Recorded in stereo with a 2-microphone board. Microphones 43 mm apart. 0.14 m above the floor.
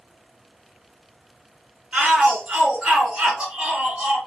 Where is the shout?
20° right (ahead or behind), 1.9 m.